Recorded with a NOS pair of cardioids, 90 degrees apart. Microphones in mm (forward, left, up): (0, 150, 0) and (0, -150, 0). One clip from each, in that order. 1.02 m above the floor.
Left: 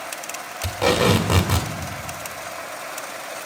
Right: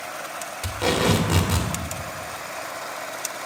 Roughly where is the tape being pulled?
Ahead.